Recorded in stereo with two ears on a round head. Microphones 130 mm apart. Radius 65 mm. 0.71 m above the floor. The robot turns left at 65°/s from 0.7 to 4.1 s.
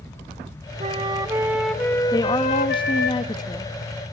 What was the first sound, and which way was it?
A flute, 125° right.